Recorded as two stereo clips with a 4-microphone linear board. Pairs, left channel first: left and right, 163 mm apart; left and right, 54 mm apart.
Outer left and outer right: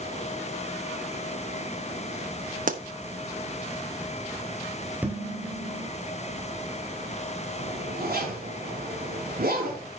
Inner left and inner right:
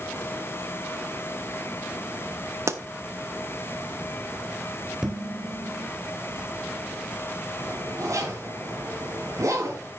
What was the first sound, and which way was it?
A pop, 55° right (ahead or behind).